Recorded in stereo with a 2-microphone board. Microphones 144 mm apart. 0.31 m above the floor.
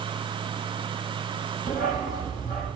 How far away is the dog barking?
About 3.5 m.